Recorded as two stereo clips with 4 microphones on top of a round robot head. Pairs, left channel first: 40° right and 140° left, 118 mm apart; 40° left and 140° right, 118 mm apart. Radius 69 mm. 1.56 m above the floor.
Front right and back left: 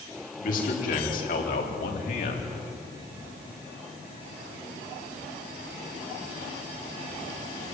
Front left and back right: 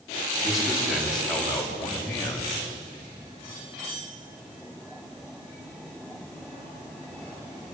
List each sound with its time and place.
0.4 s a man speaking: 55° right, 5 m; by 2.5 s 30° right, 4 m